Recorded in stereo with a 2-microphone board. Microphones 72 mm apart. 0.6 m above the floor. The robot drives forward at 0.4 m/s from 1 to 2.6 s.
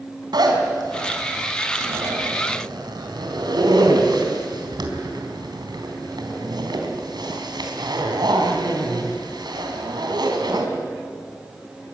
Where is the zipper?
75° right (ahead or behind), 4 m; by 10.7 s 80° right, 3.5 m.